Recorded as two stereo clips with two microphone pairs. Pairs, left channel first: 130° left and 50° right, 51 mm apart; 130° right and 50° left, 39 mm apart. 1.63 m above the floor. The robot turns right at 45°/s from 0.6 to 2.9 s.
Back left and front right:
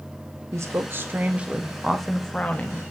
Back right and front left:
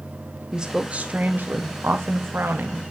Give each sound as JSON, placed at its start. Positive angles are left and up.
{"t": 0.5, "sound": "a woman speaking", "azimuth_deg": -20, "distance_m": 1.4}